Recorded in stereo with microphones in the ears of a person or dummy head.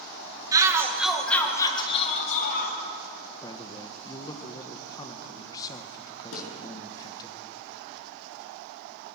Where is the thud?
75° left (ahead or behind), 6 m.